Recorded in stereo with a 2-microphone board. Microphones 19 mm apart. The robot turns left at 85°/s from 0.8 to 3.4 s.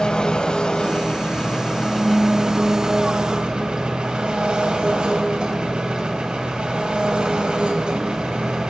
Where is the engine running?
120° left, 2.5 m; by 8.7 s 100° right, 2.5 m.